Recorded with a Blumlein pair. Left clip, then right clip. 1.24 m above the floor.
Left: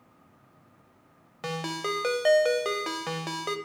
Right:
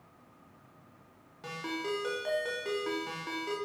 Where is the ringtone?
60° left, 0.7 m.